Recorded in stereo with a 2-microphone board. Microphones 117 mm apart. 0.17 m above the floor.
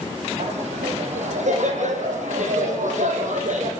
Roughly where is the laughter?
Right.